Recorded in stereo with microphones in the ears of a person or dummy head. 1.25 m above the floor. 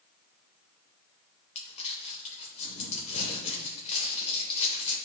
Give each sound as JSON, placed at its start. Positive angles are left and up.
{"t": 1.6, "sound": "crumpling", "side_deg": 35, "distance_m": 2.5}